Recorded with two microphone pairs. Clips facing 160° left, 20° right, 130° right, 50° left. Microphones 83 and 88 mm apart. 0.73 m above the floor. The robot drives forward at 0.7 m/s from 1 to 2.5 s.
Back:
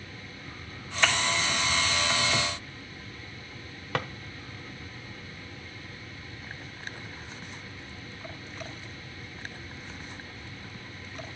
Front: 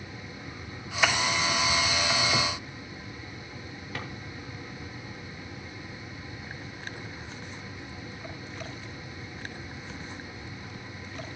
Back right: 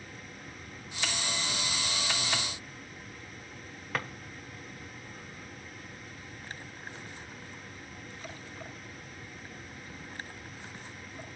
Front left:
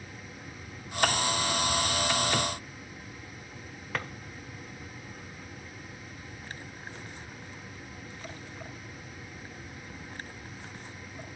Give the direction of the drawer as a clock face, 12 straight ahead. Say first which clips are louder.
Back 8 dB, even; 7 o'clock.